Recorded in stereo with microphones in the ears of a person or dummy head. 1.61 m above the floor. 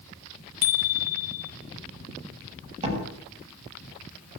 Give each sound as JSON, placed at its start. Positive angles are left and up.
{"t": 0.6, "sound": "a bicycle bell", "side_deg": 55, "distance_m": 2.5}
{"t": 2.8, "sound": "a door slam", "side_deg": -30, "distance_m": 10.0}